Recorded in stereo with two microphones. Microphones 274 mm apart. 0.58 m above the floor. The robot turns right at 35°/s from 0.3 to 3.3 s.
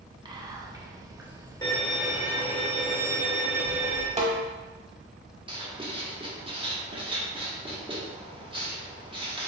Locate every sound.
0.2 s whispering: 15° right (ahead or behind), 0.6 m; by 2.6 s 10° left (ahead or behind), 0.6 m
1.6 s a violin: 165° left, 0.8 m; by 4.1 s 135° right, 0.8 m
4.2 s a snare drum: 25° right (ahead or behind), 0.7 m
5.5 s writing: 20° right (ahead or behind), 0.8 m